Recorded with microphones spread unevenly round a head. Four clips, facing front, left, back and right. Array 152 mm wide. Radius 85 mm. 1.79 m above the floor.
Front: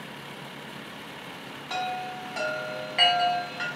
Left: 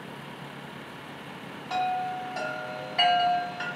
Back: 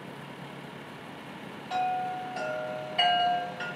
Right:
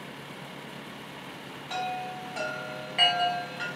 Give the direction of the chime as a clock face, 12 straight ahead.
12 o'clock.